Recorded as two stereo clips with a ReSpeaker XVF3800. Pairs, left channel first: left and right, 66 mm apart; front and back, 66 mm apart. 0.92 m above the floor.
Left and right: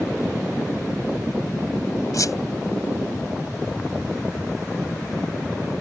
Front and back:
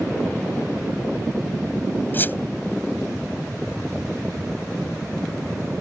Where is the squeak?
60° left.